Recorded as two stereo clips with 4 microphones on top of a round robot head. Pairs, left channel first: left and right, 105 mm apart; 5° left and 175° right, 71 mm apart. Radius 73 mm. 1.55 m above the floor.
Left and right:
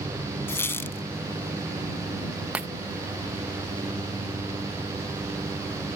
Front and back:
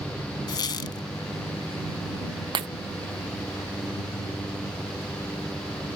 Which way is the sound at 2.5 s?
170° right.